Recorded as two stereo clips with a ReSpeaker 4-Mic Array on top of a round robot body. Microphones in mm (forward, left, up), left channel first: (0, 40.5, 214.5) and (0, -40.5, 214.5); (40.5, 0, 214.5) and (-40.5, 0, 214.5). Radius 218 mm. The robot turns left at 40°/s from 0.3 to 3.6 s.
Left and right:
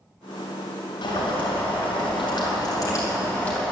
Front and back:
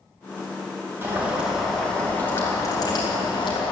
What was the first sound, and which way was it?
Boiling, 115° left.